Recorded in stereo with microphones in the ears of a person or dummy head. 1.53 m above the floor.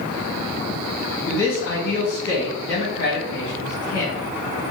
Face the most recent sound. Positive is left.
turn(degrees=65)  # may be behind; listen again after turning